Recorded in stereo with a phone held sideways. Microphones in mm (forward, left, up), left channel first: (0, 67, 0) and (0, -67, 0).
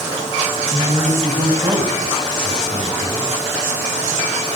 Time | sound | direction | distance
0.7 | a man speaking | 35° right (ahead or behind) | 5 m